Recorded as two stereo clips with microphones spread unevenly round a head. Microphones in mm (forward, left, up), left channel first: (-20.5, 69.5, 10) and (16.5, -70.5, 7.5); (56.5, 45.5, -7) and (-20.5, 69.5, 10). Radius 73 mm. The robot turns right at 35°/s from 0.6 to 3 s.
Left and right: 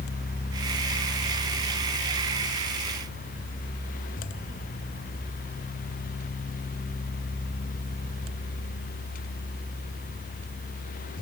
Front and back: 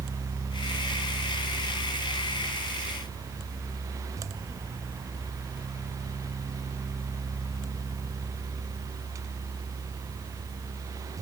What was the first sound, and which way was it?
Only background noise.